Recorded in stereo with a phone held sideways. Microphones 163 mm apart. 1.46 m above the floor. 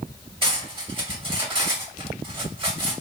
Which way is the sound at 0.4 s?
30° right (ahead or behind).